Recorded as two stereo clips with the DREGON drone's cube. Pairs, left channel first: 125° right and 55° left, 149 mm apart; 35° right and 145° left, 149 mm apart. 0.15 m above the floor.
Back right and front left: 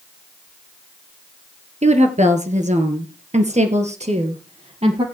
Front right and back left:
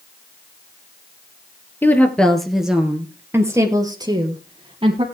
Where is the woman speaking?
40° left, 2.0 m; by 5.0 s 100° left, 3 m.